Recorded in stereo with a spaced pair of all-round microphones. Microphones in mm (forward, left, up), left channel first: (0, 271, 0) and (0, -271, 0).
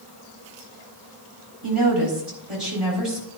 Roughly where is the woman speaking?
Right.